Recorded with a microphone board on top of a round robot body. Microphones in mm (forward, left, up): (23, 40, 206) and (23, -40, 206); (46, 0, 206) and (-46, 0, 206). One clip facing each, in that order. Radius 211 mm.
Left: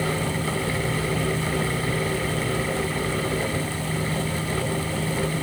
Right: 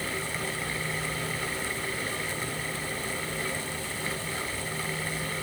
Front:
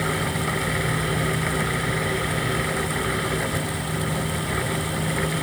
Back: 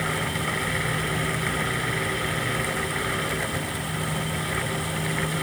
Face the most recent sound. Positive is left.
No sound to turn to.